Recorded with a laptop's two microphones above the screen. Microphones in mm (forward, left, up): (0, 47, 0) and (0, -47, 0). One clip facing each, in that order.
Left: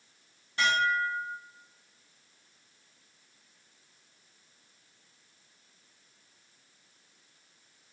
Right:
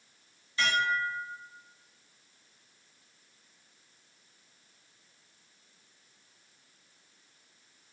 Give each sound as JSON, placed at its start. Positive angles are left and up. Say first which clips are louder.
{"t": 0.6, "sound": "dishes clattering", "louder": "left 2 dB", "side_deg": 65, "distance_m": 1.7}